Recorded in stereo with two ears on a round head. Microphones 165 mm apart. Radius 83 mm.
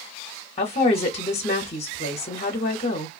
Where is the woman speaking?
35° left (ahead or behind), 0.8 m.